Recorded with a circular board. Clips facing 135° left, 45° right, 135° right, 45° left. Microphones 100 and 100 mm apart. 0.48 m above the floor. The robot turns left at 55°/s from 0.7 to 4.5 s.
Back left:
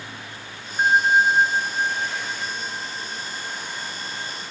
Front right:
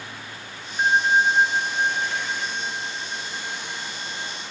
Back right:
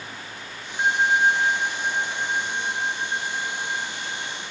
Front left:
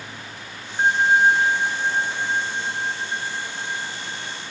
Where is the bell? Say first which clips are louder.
Back left 2 dB, front left 3 dB; 80° left, 1.1 m; by 4.3 s 115° right, 1.1 m.